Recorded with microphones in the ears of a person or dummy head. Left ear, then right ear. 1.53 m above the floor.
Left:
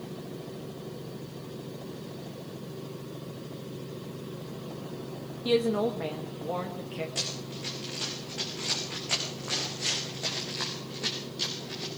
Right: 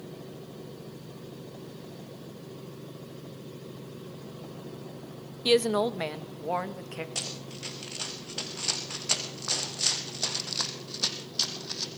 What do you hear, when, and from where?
5.5 s a woman speaking: 75° right (ahead or behind), 1.5 m; by 7.0 s 40° right (ahead or behind), 2.0 m
7.2 s running footsteps: 30° right (ahead or behind), 5 m; by 11.9 s 55° right (ahead or behind), 3.5 m